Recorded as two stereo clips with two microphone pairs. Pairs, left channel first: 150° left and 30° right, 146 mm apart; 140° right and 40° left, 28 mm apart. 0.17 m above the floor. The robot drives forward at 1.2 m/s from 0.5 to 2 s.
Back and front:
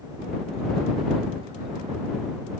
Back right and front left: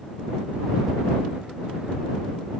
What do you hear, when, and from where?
Only background noise.